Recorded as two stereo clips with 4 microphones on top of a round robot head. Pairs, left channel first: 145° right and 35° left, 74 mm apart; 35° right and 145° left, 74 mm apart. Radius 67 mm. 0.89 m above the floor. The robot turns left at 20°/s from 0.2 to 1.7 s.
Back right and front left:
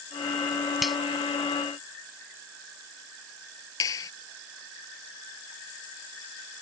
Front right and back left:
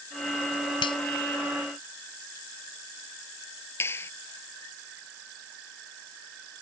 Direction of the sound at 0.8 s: 50° right.